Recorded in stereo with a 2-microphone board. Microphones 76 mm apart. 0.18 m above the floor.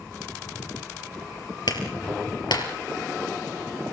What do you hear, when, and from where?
1.7 s a clap: 70° left (ahead or behind), 3.5 m